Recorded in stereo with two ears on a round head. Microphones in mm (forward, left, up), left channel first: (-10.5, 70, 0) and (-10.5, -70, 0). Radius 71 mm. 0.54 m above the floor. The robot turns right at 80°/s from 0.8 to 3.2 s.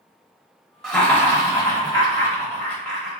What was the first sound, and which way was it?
Laughter, 5° left (ahead or behind).